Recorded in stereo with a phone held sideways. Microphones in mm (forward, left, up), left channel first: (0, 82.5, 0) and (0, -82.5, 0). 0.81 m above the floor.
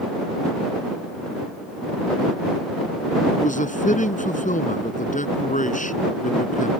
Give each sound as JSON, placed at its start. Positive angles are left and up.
{"t": 3.4, "sound": "a man speaking", "side_deg": 50}